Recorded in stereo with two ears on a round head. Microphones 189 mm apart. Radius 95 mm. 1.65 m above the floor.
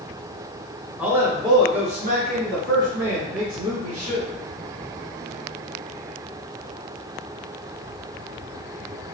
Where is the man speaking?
5° right (ahead or behind), 1.0 m; by 4.3 s 80° right, 1.6 m.